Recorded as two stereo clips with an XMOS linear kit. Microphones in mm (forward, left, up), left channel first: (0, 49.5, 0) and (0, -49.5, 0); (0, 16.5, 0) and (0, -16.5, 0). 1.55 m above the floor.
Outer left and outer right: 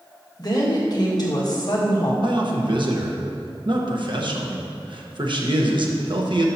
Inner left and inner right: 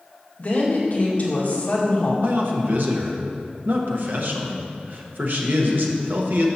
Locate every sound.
0.4 s a woman speaking: 45° left (ahead or behind), 1.8 m
2.2 s a man speaking: 60° right (ahead or behind), 1.1 m